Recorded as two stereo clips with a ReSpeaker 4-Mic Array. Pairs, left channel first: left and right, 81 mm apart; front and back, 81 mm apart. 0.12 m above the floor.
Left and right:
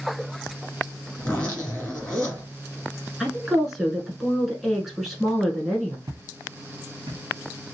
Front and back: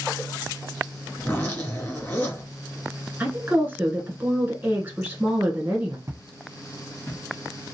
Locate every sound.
1.2 s a zipper: 35° left, 1.9 m
3.2 s a woman speaking: 175° right, 1.1 m
6.1 s footsteps: 130° right, 0.5 m; by 7.2 s 65° right, 0.9 m